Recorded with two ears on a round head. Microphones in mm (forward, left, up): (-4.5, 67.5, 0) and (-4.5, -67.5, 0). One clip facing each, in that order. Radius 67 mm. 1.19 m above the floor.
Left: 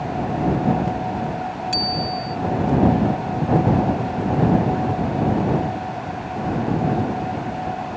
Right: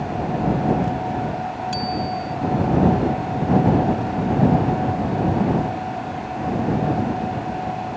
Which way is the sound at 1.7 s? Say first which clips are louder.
Right 1 dB; 15° left (ahead or behind).